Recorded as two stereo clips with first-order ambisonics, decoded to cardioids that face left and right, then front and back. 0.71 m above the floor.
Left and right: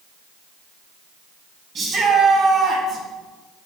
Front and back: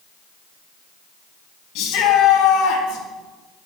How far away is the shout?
About 5 m.